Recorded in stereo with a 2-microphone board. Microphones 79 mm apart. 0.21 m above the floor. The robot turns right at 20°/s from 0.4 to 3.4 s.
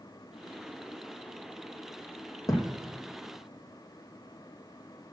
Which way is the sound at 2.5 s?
45° left (ahead or behind).